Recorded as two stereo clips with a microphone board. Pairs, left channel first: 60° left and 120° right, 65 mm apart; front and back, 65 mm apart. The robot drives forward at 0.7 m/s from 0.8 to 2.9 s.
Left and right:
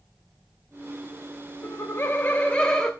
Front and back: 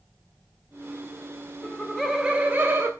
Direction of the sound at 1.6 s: 65° left.